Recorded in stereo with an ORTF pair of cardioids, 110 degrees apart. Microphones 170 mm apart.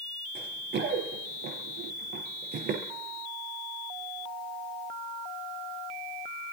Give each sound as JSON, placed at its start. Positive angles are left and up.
{"t": 0.3, "sound": "running footsteps", "azimuth_deg": -70, "distance_m": 4.0}